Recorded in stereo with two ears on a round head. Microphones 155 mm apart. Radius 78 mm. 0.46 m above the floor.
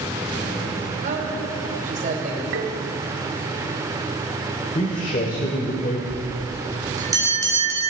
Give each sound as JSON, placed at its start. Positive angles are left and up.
{"t": 1.0, "sound": "a man speaking", "side_deg": -45, "distance_m": 2.5}
{"t": 2.5, "sound": "tapping", "side_deg": -85, "distance_m": 1.1}
{"t": 4.8, "sound": "a man speaking", "side_deg": 45, "distance_m": 1.2}
{"t": 6.1, "sound": "a bell", "side_deg": -20, "distance_m": 1.9}